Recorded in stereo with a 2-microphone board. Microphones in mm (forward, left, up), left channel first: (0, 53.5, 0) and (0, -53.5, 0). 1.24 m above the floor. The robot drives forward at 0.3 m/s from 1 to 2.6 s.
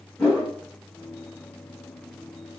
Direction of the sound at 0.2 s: 5° left (ahead or behind).